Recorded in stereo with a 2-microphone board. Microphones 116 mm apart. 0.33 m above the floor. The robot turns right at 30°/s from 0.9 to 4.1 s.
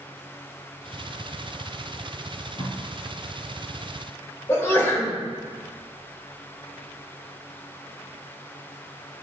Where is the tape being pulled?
35° left (ahead or behind), 1.2 m; by 2.8 s 50° left (ahead or behind), 1.2 m.